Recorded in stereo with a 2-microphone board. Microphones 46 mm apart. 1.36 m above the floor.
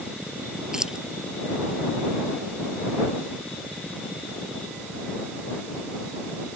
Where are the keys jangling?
15° right (ahead or behind).